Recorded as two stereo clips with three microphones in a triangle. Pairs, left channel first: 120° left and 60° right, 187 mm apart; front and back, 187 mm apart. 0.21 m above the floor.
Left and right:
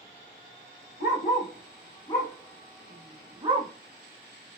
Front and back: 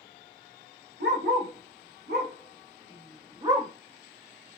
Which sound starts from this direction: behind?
A dog barking, at 1.0 s.